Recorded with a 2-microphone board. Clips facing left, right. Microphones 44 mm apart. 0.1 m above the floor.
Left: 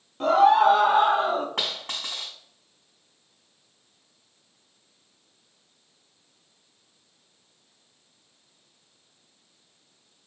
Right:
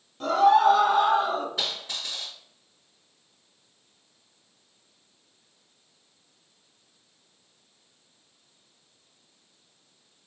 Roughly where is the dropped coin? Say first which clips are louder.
Left 1 dB; left.